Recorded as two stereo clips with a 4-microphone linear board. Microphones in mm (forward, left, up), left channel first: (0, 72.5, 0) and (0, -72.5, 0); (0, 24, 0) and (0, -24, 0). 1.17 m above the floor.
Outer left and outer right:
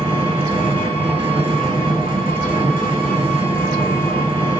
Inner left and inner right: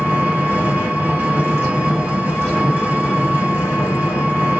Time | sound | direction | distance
0.0 | an engine running | 35° right (ahead or behind) | 2 m